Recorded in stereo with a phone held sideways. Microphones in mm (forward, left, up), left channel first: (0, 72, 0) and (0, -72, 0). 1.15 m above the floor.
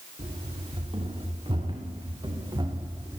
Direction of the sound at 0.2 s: 40° right (ahead or behind).